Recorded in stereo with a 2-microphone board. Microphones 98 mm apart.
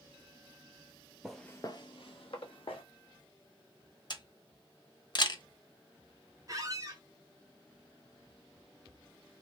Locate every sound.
1.2 s footsteps: 5° right (ahead or behind), 0.6 m; by 2.8 s 65° left (ahead or behind), 1.4 m
4.1 s a camera shutter: 50° left (ahead or behind), 0.8 m
6.5 s a squeak: 35° right (ahead or behind), 1.0 m